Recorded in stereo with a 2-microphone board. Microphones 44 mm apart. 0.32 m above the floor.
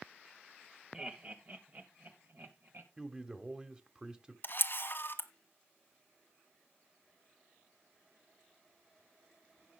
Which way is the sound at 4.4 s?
50° left (ahead or behind).